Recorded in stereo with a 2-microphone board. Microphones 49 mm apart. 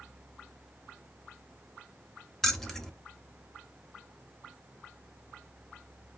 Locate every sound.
2.4 s keys jangling: 5° left (ahead or behind), 0.6 m